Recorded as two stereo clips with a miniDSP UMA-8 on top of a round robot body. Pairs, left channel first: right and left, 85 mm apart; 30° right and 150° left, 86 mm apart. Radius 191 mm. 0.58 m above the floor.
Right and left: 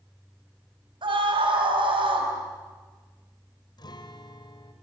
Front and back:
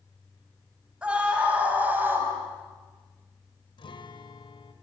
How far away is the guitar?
About 1.7 m.